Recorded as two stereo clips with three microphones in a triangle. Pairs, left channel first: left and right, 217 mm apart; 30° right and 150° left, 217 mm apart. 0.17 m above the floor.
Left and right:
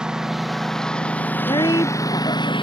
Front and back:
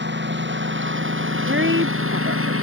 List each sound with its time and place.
0.0 s a lawn mower: 175° right; by 2.6 s 155° left
1.5 s a woman speaking: 160° left